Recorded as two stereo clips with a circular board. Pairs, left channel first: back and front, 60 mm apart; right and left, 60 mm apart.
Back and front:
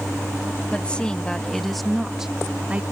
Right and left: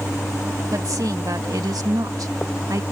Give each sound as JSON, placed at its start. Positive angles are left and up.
{"t": 0.7, "sound": "a woman speaking", "azimuth_deg": 110}